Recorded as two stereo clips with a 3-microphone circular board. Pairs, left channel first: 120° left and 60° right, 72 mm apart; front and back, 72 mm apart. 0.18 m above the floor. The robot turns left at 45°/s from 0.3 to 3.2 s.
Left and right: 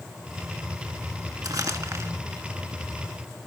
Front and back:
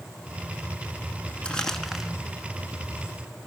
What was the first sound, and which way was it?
Crumpling, 70° right.